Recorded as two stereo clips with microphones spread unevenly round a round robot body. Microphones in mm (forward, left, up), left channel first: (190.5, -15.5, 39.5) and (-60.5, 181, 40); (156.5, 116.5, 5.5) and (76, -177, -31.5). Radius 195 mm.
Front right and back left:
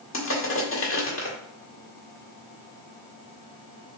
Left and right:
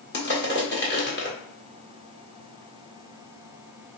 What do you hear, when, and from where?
0.1 s crushing: 15° left, 1.7 m